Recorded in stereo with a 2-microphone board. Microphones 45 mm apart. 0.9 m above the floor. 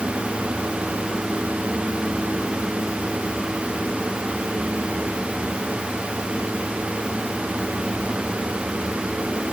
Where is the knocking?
No knocking in this recording.